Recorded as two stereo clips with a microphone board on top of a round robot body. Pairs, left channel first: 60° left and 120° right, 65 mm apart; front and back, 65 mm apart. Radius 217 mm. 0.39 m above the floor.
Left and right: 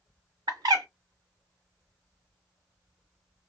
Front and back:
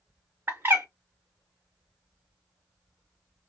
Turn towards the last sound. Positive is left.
turn(degrees=-125)